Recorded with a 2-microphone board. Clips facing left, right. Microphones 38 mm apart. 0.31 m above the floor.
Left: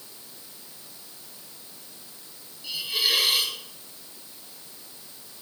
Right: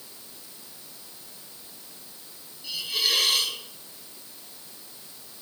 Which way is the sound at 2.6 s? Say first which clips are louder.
Left 1 dB; 10° left (ahead or behind).